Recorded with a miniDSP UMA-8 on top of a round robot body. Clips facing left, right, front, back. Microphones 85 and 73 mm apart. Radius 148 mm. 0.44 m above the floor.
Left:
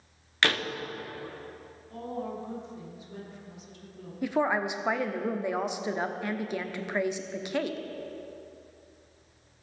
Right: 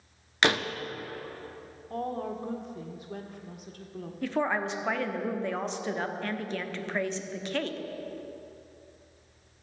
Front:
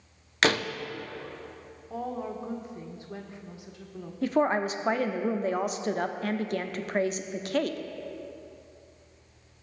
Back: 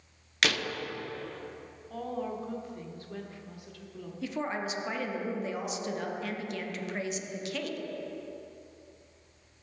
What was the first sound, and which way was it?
A door slam, 30° right.